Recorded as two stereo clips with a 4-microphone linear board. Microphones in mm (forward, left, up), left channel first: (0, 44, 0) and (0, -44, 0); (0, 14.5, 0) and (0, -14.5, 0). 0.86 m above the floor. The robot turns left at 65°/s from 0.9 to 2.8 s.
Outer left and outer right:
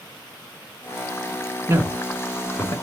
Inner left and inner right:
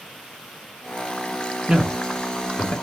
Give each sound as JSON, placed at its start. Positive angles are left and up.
{"t": 1.7, "sound": "a man speaking", "side_deg": -30, "distance_m": 0.9}